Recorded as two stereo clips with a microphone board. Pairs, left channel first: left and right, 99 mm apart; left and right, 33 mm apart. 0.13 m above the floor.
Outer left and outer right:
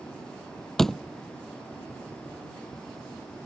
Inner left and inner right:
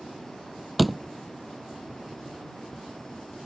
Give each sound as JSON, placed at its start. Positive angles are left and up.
{"t": 0.8, "sound": "a door slam", "side_deg": 5}